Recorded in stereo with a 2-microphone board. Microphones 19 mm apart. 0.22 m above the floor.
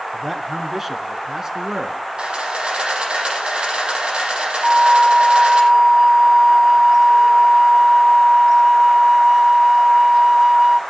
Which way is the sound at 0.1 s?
5° right (ahead or behind).